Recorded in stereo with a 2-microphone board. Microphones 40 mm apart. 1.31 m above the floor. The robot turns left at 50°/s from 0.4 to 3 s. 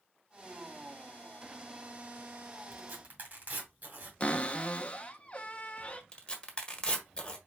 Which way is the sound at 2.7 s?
55° right (ahead or behind).